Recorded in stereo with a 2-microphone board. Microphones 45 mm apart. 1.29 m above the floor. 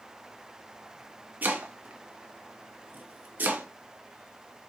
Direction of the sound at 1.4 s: 40° right (ahead or behind).